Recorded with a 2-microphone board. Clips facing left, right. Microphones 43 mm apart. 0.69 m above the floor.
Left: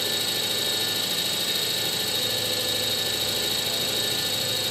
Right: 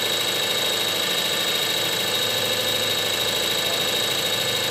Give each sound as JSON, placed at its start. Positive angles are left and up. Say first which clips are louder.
{"t": 0.0, "sound": "an engine running", "louder": "right 4 dB", "side_deg": -60, "distance_m": 1.0}